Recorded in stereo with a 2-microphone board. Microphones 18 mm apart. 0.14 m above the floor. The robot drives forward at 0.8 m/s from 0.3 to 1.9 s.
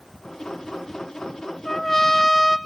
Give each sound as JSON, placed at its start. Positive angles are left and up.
{"t": 1.6, "sound": "a trumpet", "side_deg": 15, "distance_m": 1.4}